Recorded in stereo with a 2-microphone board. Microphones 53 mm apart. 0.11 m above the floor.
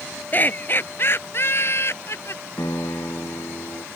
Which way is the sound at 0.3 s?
35° left (ahead or behind).